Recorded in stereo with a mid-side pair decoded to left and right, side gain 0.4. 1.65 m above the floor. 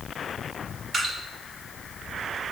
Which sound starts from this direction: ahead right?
Dripping, at 0.9 s.